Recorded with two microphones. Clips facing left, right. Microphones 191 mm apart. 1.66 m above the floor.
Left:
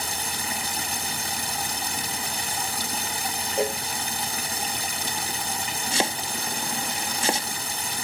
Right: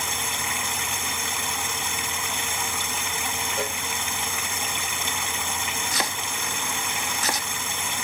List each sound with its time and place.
0.0 s running water: 40° left (ahead or behind)
3.6 s a cowbell: 25° left (ahead or behind)
5.9 s chopping: 25° left (ahead or behind)